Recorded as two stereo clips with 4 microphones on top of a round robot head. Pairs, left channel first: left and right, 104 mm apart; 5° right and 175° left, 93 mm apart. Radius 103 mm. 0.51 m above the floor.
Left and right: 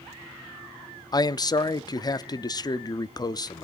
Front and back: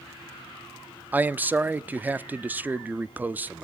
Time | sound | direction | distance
1.1 | a man speaking | 110° left | 0.8 m